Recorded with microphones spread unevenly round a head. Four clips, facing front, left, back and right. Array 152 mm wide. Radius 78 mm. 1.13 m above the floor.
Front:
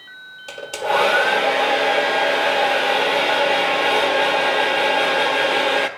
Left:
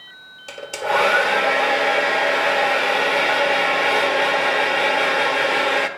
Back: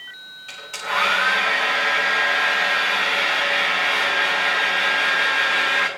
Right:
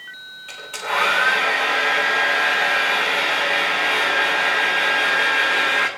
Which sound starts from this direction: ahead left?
A hair dryer, at 0.5 s.